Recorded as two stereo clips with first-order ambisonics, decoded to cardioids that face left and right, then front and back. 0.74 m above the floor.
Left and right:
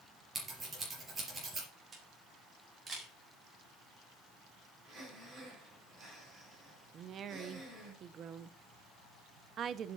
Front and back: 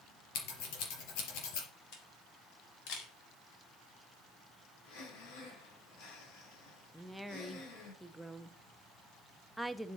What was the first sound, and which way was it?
Scissors, 15° right.